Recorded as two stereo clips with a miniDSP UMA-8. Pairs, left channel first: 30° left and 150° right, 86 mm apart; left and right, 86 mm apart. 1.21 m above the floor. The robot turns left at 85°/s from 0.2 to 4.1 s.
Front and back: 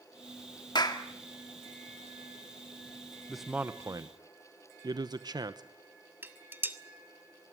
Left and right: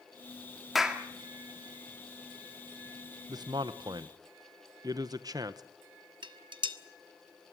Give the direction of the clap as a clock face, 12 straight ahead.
12 o'clock.